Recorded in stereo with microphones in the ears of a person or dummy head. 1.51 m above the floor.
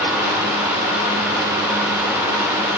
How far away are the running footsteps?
No running footsteps in this recording.